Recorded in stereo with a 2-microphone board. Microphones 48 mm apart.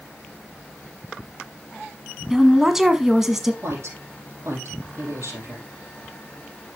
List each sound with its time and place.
2.3 s a woman speaking: 5° right (ahead or behind), 1.2 m
3.6 s a woman speaking: 65° right (ahead or behind), 5.5 m